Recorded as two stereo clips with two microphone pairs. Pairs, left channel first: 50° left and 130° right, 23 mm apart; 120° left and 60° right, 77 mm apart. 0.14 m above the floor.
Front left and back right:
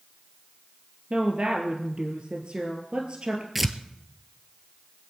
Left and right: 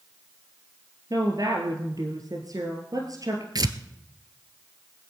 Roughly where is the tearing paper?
Ahead right.